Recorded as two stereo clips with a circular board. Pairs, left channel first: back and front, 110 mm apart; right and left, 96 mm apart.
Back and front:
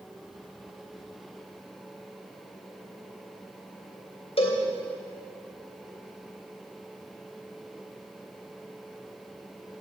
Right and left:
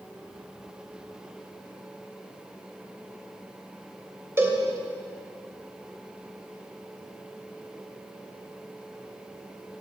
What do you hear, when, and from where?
4.4 s a cowbell: 155° left, 2.5 m